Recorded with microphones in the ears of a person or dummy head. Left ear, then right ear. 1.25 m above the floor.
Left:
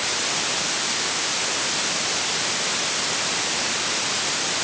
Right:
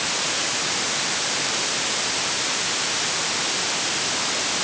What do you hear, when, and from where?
Only background noise.